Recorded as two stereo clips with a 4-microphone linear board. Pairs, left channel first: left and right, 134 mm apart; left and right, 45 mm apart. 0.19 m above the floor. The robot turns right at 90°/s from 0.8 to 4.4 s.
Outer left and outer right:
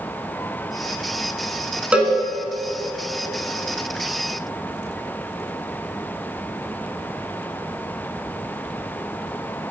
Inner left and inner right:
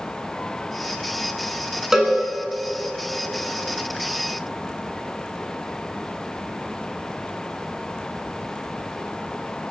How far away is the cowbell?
About 1.3 m.